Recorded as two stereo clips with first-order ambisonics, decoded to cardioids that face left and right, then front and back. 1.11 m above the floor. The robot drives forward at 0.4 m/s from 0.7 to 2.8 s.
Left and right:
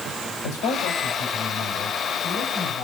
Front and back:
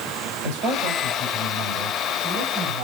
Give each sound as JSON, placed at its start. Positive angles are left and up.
{"t": 0.4, "sound": "a man speaking", "azimuth_deg": 130, "distance_m": 5.0}